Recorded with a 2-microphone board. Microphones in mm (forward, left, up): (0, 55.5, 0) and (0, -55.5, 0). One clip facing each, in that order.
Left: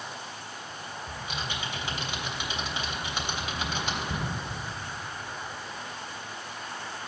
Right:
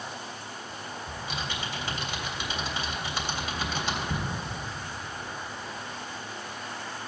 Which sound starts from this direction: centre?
Typing on a keyboard, at 1.1 s.